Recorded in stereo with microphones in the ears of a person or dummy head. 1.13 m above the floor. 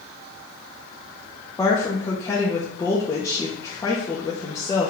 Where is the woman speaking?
10° left (ahead or behind), 0.5 m.